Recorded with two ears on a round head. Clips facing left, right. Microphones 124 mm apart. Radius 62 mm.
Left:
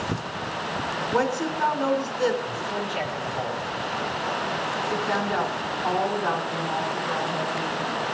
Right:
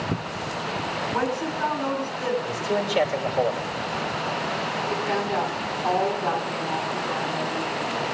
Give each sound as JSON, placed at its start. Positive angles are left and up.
{"t": 1.1, "sound": "a woman speaking", "side_deg": 60, "distance_m": 3.0}
{"t": 2.4, "sound": "a man speaking", "side_deg": -75, "distance_m": 2.5}
{"t": 4.9, "sound": "a woman speaking", "side_deg": -5, "distance_m": 8.0}